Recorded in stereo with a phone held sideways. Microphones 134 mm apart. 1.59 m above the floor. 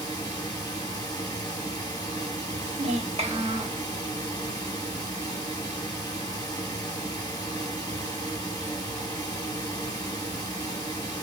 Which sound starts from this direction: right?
A child speaking, at 2.6 s.